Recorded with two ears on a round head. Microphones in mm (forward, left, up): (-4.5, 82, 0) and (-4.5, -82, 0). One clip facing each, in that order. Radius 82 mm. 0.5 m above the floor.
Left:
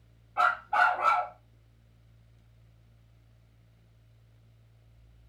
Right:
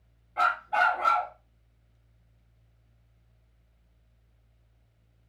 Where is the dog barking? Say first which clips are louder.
Even; 10° right (ahead or behind), 1.0 m.